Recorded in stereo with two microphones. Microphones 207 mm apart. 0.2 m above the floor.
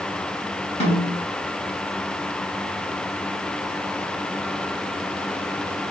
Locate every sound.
0.8 s a snare drum: 30° left (ahead or behind), 1.6 m